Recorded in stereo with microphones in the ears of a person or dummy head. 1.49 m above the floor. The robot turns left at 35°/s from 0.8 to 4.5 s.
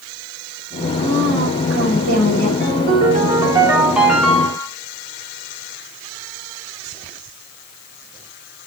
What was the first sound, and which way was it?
A woman speaking, 90° right.